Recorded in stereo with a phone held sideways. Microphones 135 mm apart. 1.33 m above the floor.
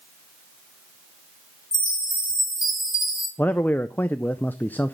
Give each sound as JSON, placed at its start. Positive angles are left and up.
{"t": 1.7, "sound": "a chime", "side_deg": 75, "distance_m": 3.0}
{"t": 3.4, "sound": "a man speaking", "side_deg": 15, "distance_m": 0.7}